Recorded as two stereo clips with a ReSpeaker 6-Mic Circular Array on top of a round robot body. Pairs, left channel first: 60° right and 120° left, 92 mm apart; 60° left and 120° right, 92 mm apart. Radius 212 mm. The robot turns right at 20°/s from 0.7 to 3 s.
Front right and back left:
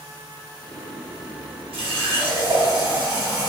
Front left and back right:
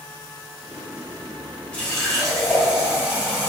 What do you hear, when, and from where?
1.7 s a running tap: 140° left, 1.2 m; by 3.5 s 165° left, 1.2 m